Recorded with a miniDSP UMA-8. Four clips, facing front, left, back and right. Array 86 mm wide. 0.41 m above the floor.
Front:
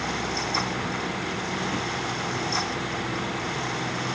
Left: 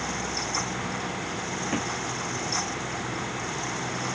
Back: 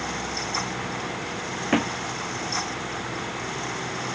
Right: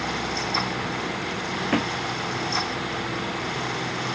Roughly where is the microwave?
I don't hear a microwave.